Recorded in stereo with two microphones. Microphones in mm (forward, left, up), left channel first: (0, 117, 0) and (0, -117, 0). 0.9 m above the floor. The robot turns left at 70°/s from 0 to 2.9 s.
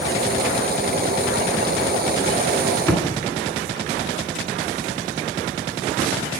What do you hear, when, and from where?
2.9 s a thud: 10° left (ahead or behind), 2 m